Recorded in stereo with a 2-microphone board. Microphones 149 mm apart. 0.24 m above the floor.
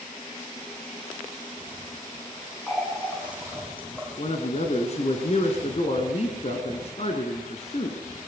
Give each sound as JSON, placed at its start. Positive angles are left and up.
{"t": 2.7, "sound": "a running tap", "side_deg": 10, "distance_m": 7.5}
{"t": 4.2, "sound": "a man speaking", "side_deg": 45, "distance_m": 3.0}